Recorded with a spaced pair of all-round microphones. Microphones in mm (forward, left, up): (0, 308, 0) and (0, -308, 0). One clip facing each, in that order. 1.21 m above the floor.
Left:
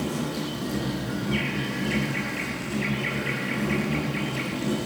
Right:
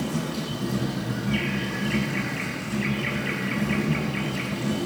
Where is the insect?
40° right (ahead or behind), 10 m.